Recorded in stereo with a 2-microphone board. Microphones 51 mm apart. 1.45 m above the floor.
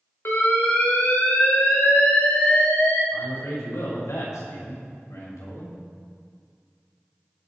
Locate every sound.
0.2 s an alarm: 55° left (ahead or behind), 4 m
3.1 s a man speaking: 90° left, 6.5 m